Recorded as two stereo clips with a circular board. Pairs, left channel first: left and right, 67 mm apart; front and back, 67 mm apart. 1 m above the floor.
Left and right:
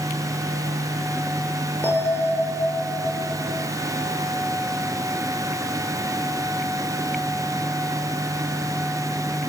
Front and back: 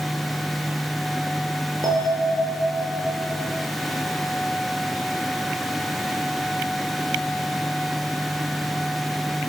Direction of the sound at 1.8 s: 155° left.